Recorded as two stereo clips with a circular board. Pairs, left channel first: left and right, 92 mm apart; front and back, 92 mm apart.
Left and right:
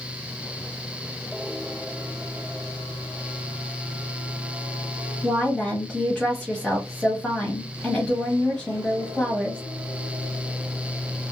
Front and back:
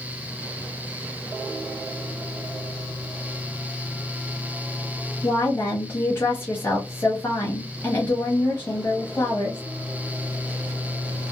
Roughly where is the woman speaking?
Ahead.